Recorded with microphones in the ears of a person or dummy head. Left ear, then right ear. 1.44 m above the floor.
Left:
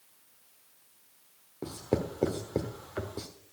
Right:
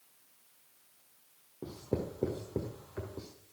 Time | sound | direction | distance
1.6 | writing | 20° left (ahead or behind) | 1.2 m